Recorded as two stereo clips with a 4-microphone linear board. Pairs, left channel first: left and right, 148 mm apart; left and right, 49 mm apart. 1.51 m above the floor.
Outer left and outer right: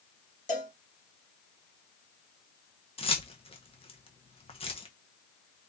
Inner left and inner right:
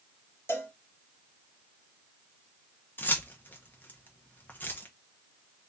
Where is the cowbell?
60° left (ahead or behind), 1.2 m.